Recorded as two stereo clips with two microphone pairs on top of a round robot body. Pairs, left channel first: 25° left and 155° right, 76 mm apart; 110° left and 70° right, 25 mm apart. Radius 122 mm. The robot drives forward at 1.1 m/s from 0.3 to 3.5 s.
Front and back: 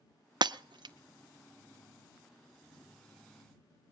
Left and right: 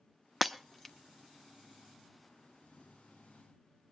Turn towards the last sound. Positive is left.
turn(degrees=-175)